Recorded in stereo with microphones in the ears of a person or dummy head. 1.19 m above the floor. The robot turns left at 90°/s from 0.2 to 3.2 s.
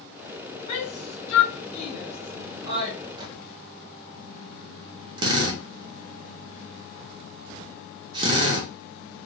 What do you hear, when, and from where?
0.7 s a shout: 25° left (ahead or behind), 0.9 m; by 3.0 s 45° right (ahead or behind), 0.9 m
3.2 s a microwave: 25° right (ahead or behind), 0.6 m
5.2 s a drill: 25° right (ahead or behind), 0.7 m